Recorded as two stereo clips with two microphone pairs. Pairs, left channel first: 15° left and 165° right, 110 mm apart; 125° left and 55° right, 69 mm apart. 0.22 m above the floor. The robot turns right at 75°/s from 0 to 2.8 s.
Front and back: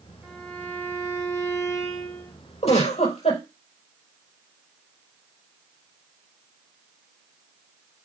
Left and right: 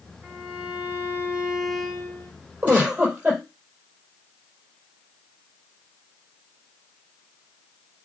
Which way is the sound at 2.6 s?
5° left.